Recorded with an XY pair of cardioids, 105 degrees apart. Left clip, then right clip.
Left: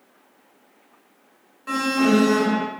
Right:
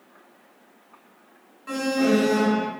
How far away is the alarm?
About 1.6 m.